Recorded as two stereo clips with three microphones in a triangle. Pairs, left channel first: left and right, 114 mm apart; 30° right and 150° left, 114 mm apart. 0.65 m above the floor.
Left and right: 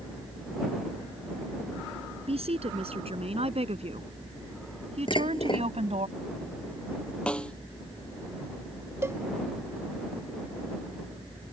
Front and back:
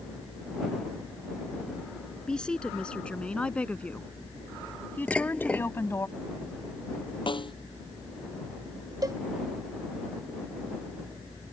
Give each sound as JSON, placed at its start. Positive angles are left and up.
{"t": 2.3, "sound": "a woman speaking", "azimuth_deg": -110}
{"t": 5.1, "sound": "dishes clattering", "azimuth_deg": 50}
{"t": 7.3, "sound": "a snare drum", "azimuth_deg": 10}
{"t": 9.0, "sound": "a cowbell", "azimuth_deg": -155}